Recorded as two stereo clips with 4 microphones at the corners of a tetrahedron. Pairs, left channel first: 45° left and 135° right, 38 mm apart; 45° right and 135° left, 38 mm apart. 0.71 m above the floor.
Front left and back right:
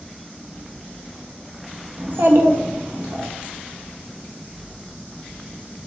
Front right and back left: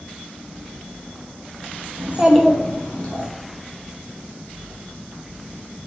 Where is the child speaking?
165° left, 0.6 m; by 3.3 s 100° right, 1.7 m.